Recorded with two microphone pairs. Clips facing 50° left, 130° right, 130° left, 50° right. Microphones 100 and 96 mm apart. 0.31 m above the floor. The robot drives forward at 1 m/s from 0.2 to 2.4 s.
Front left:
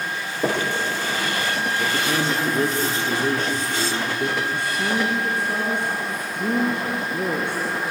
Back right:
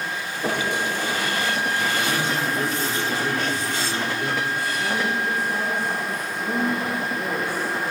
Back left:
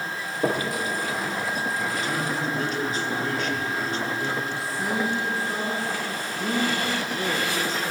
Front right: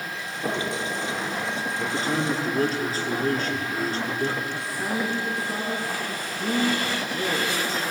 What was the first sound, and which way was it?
Knocking, 85° left.